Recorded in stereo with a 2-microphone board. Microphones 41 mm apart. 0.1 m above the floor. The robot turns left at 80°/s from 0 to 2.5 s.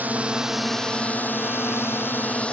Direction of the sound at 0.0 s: 130° right.